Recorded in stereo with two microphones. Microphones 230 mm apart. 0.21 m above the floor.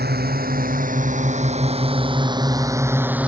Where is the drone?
45° right (ahead or behind); by 3.3 s 5° right (ahead or behind).